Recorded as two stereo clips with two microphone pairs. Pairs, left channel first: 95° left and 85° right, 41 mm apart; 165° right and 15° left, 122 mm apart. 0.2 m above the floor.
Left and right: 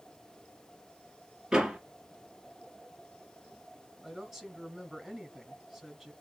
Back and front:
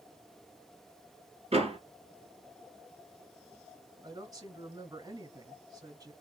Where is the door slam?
15° right, 3.5 m.